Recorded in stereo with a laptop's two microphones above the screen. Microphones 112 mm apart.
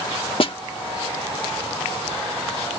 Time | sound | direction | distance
0.4 | a snare drum | 50° left (ahead or behind) | ?